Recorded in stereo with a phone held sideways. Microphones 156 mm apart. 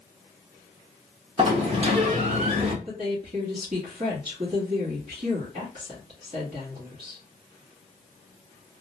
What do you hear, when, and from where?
1.4 s a sliding door: 40° right (ahead or behind), 0.7 m
2.9 s a woman speaking: 55° right (ahead or behind), 1.0 m